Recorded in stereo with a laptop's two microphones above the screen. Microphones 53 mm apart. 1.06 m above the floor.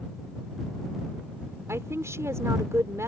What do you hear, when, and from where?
1.7 s a woman speaking: 80° right